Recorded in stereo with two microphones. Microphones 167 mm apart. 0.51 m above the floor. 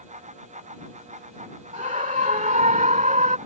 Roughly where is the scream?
Right.